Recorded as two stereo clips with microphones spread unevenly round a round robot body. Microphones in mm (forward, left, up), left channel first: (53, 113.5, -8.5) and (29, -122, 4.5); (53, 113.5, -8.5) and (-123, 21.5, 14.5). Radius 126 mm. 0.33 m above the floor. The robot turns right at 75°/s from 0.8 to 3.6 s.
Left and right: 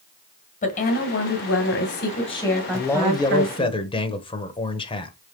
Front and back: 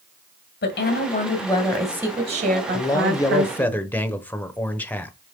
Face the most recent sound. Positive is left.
turn(degrees=80)